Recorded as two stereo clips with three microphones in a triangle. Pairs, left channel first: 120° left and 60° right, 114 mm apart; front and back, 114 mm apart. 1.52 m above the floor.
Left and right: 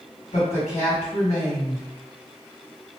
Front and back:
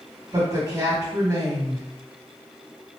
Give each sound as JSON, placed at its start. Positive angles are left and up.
{"t": 0.3, "sound": "a woman speaking", "azimuth_deg": 120, "distance_m": 1.6}